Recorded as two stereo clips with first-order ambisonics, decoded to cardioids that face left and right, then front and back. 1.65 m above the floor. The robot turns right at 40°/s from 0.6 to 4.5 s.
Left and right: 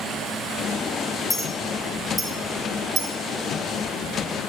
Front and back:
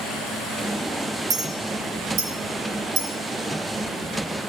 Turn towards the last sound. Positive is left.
turn(degrees=-90)